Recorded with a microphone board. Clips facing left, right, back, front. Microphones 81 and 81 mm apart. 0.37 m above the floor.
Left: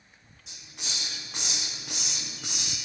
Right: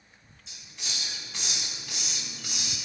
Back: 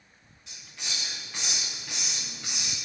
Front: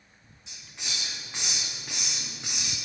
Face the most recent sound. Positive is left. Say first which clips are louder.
# left 1 dB, even
turn(degrees=70)